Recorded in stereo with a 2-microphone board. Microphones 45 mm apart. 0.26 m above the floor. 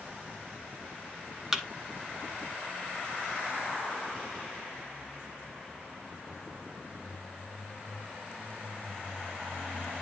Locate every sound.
1.5 s a thud: 10° right (ahead or behind), 0.8 m